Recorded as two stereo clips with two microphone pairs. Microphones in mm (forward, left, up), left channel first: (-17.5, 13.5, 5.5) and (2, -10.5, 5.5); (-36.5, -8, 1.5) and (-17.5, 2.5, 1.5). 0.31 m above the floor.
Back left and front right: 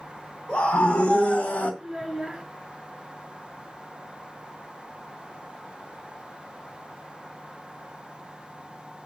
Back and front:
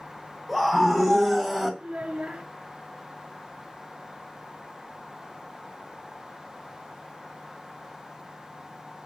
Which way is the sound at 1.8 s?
30° left.